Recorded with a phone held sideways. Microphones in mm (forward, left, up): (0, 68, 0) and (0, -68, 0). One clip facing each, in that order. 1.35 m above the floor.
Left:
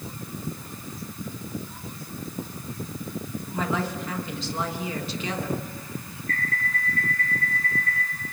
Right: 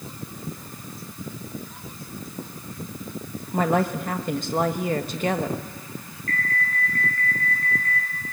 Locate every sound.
3.5 s a woman speaking: 55° right (ahead or behind), 1.2 m
6.3 s an alarm: 80° right, 8 m